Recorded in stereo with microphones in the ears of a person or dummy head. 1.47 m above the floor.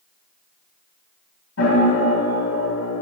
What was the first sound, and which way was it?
A piano, 85° left.